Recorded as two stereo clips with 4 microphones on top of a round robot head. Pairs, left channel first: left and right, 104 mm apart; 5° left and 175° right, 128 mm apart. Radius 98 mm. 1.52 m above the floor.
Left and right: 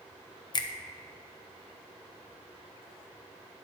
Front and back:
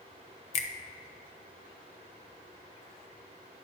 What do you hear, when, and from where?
0.5 s a finger snap: 40° left, 0.8 m